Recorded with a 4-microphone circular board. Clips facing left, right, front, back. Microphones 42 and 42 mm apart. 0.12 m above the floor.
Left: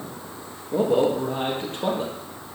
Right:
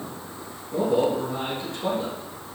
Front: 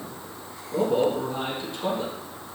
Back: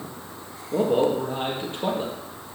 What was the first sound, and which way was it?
A man speaking, 130° left.